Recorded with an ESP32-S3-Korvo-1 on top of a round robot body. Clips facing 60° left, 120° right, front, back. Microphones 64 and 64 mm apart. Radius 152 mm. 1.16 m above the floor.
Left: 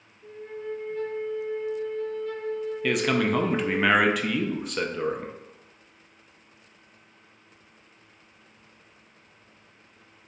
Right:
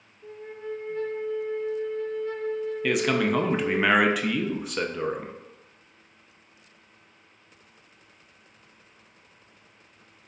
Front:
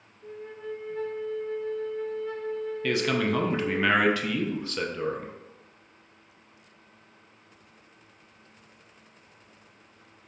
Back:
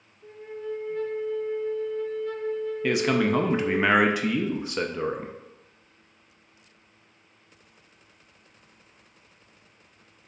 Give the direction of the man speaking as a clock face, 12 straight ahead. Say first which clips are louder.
Even, back 3 dB; 7 o'clock.